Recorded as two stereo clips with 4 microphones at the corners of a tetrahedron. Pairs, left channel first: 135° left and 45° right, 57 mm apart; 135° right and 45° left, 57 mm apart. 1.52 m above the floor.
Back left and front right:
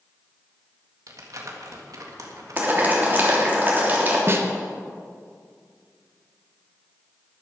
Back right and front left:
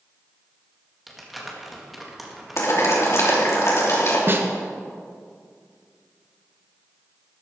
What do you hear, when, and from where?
1.1 s crumpling: 45° right, 1.9 m
2.6 s boiling: 105° right, 3 m
4.3 s a snare drum: straight ahead, 1.2 m